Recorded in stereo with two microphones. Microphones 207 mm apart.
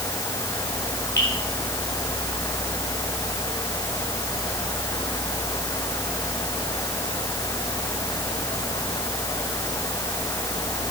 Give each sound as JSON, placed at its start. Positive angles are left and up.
{"t": 1.2, "sound": "dripping", "side_deg": 55, "distance_m": 6.0}